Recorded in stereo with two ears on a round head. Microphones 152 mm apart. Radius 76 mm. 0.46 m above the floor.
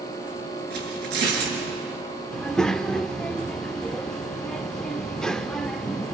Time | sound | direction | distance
0.7 | tearing paper | 70° right (ahead or behind) | 5.5 m
2.3 | a child speaking | 5° left (ahead or behind) | 0.5 m